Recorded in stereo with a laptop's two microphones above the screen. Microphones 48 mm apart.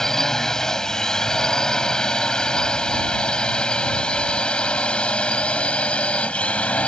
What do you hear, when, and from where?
0.0 s a drone: 10° left (ahead or behind); by 6.9 s 25° left (ahead or behind)